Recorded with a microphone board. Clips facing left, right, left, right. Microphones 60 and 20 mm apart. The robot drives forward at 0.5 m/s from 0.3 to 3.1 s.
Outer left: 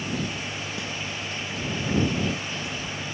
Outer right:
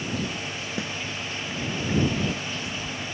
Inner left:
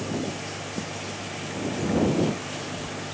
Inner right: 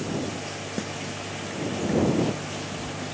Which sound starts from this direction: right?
A snare drum, at 0.8 s.